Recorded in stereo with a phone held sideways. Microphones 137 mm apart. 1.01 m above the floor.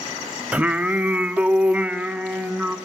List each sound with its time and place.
0.5 s singing: 10° right (ahead or behind), 0.9 m